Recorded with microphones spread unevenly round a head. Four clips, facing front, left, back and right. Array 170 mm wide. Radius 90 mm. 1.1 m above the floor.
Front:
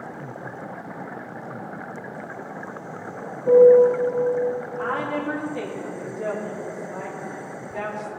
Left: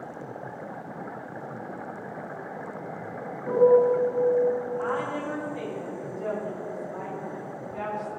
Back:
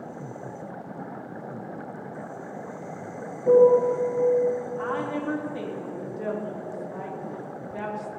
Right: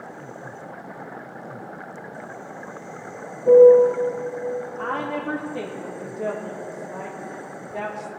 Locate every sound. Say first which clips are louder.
3.5 s a piano: right 8 dB, front 4 dB; 140° right, 4 m
4.8 s a woman speaking: right 2 dB, front 2 dB; 125° right, 2.5 m